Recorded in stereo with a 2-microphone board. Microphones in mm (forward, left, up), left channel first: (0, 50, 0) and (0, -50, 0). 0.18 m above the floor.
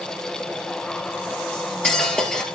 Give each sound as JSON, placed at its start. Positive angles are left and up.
{"t": 1.5, "sound": "cutlery clinking", "side_deg": 5, "distance_m": 2.0}